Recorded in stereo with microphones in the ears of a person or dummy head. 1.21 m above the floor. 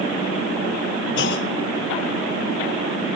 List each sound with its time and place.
1.2 s a clunk: 60° left (ahead or behind), 1.3 m